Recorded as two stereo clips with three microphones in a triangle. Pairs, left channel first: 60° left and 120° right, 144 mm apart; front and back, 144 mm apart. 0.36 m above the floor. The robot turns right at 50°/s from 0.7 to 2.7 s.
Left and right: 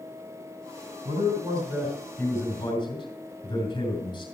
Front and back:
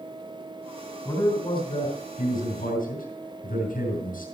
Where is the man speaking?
80° right, 5.5 m; by 4.2 s 5° left, 5.5 m.